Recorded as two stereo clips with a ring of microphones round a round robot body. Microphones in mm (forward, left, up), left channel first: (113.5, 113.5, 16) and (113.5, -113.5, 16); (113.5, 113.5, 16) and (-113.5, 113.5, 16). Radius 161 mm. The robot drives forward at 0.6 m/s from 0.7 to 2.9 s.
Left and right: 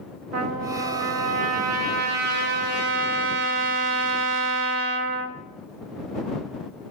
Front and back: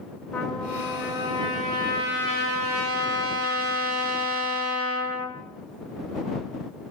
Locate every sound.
0.3 s a trumpet: 85° right, 1.1 m; by 5.4 s 135° right, 1.6 m